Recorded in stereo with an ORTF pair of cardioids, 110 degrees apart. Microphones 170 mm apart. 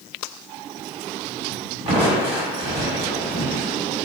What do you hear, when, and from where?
1.9 s crushing: 30° right, 1.1 m